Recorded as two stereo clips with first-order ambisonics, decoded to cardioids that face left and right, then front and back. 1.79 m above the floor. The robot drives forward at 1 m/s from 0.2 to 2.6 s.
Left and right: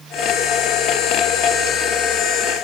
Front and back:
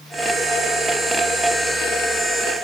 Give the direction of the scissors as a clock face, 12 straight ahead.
I don't hear scissors.